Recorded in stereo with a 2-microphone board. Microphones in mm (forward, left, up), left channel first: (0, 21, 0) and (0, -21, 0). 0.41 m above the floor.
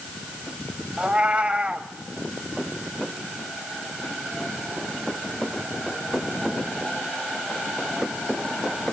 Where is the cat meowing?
30° right (ahead or behind), 1.2 m.